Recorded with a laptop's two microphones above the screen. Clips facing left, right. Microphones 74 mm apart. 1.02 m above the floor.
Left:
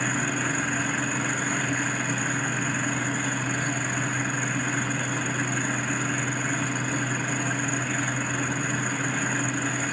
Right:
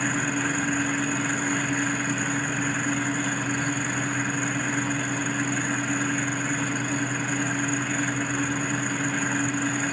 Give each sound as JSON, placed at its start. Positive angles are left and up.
{"t": 0.0, "sound": "a fan", "side_deg": 25, "distance_m": 9.0}